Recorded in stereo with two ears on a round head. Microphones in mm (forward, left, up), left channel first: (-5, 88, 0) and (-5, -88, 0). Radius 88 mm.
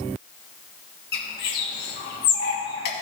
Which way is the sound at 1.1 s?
55° left (ahead or behind).